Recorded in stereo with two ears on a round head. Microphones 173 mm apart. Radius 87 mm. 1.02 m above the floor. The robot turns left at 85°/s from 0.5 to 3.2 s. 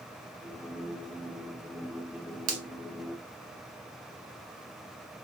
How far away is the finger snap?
About 1.0 m.